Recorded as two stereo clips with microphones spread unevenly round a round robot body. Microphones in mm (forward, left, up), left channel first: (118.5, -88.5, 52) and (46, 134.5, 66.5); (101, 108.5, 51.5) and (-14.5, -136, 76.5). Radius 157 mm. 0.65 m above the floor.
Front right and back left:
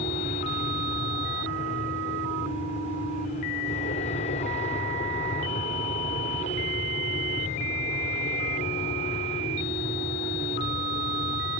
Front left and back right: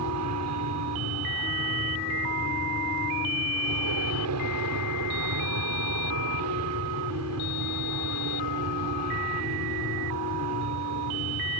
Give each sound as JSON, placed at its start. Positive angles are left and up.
{"t": 0.0, "sound": "an aircraft", "azimuth_deg": -125}